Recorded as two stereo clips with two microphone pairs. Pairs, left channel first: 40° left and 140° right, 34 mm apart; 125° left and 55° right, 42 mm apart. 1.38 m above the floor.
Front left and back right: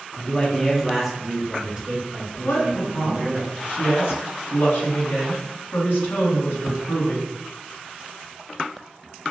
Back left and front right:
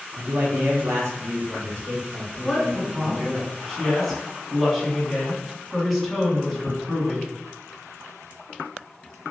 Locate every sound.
0.2 s a man speaking: 20° right, 0.7 m; by 3.4 s 90° right, 2.5 m
2.4 s a woman speaking: 35° left, 2.0 m